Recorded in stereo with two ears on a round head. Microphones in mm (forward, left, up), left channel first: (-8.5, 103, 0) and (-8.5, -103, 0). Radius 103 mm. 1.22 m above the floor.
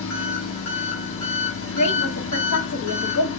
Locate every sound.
0.0 s an engine running: 60° left (ahead or behind), 1.5 m
1.7 s a woman speaking: 75° left (ahead or behind), 1.1 m